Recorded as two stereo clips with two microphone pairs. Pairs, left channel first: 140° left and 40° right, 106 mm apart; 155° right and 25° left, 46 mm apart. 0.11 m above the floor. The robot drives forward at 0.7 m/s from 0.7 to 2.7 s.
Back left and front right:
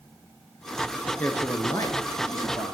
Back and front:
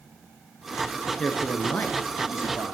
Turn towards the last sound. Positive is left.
turn(degrees=180)